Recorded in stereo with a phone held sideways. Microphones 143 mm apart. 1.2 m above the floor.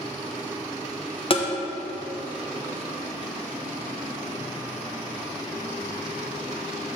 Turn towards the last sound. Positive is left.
turn(degrees=40)  # may be behind; listen again after turning